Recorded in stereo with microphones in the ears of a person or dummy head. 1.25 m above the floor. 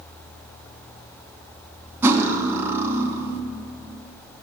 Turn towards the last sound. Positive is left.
turn(degrees=-15)  # may be behind; listen again after turning